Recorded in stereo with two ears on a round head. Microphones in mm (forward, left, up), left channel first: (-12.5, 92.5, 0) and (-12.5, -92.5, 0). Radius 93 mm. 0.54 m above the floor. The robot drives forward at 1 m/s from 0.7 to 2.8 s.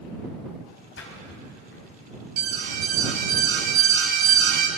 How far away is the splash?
About 4 m.